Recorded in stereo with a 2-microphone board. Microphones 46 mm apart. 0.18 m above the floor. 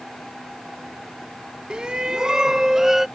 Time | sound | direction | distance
1.7 | a shout | 20° right (ahead or behind) | ?